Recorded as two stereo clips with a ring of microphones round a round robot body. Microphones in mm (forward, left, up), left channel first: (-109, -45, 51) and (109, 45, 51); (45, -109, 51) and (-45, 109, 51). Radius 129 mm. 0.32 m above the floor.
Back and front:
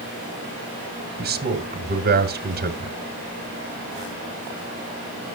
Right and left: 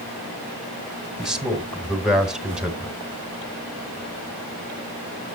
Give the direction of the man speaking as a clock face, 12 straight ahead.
11 o'clock.